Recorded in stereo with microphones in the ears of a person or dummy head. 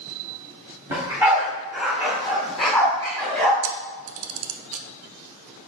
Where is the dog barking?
10° right (ahead or behind), 3 m; by 3.5 s 10° left (ahead or behind), 4 m.